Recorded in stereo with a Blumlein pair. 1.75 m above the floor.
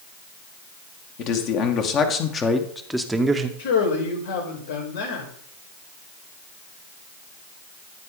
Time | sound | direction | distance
1.2 | a man speaking | 40° left | 2 m
3.6 | a man speaking | 70° left | 5 m